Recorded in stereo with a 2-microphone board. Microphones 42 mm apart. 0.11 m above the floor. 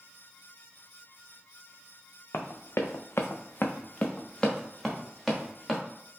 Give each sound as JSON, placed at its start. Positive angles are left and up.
{"t": 2.3, "sound": "running footsteps", "side_deg": 70, "distance_m": 0.7}